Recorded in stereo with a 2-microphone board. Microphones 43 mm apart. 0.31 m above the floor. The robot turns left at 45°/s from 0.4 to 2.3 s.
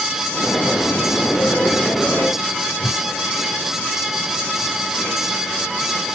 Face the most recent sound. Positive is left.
turn(degrees=50)  # may be behind; listen again after turning